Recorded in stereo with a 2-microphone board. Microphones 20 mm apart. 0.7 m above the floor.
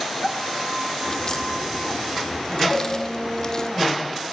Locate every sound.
1.1 s a crack: 30° left (ahead or behind), 2.5 m
2.7 s a cowbell: 20° left (ahead or behind), 6.5 m